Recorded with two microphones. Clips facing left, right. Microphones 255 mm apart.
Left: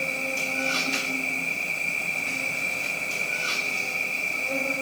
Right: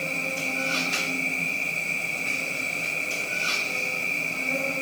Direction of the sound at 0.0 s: 60° left (ahead or behind).